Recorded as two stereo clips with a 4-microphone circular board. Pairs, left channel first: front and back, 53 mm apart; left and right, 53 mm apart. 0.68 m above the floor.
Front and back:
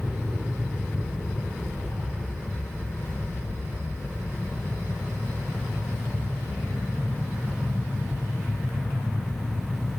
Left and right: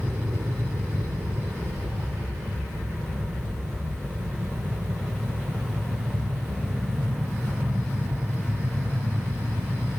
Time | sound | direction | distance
0.0 | an aircraft | 80° right | ?